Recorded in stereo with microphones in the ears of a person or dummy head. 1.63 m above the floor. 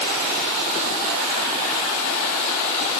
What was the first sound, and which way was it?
Only background noise.